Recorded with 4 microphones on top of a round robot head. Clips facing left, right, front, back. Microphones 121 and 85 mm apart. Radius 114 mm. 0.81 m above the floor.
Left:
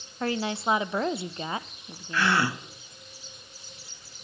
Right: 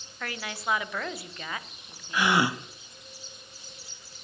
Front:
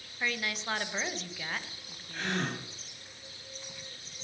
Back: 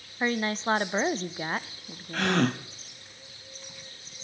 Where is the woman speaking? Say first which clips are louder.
Left 7 dB, back 7 dB; 140° left, 0.6 m.